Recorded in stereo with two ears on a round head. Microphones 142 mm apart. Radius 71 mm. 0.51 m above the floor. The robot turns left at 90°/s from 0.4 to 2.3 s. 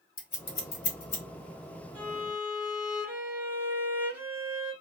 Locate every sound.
0.2 s scissors: 35° left (ahead or behind), 1.2 m; by 1.2 s 40° left (ahead or behind), 1.2 m
1.9 s a violin: 130° right, 0.9 m; by 4.7 s 165° right, 0.9 m